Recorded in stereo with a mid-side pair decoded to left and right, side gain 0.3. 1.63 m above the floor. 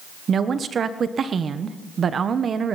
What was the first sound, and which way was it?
A woman speaking, 65° right.